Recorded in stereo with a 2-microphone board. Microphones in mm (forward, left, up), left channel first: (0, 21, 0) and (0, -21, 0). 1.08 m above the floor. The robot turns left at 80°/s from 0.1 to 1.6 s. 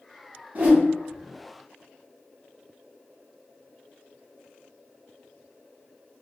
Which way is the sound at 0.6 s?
40° right (ahead or behind).